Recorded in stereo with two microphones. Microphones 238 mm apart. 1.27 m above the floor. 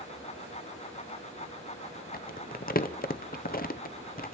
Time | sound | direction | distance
2.1 | crumpling | 40° left (ahead or behind) | 0.6 m